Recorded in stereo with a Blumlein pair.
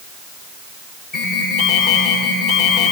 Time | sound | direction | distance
1.1 | an alarm | 20° left | 7.5 m